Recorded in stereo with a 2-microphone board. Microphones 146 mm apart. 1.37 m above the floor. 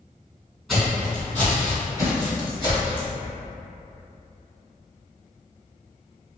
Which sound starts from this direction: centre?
Footsteps, at 0.7 s.